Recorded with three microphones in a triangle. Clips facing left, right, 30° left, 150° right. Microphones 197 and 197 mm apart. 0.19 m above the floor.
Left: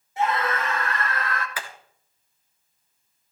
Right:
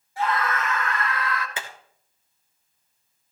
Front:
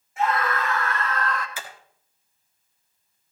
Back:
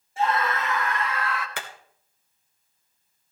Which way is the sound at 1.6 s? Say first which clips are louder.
Even, back 2 dB; 155° right.